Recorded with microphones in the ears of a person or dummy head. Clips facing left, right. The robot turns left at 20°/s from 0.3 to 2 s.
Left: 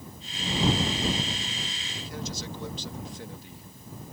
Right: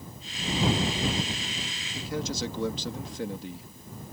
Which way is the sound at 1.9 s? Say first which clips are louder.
Right 6 dB; 70° right (ahead or behind).